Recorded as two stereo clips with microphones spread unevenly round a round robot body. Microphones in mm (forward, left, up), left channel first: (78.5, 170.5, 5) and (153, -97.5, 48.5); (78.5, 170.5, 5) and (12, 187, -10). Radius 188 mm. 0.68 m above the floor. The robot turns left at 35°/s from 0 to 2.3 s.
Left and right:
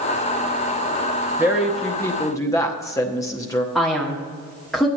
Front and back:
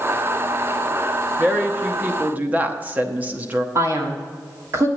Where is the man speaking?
175° right, 1.5 m.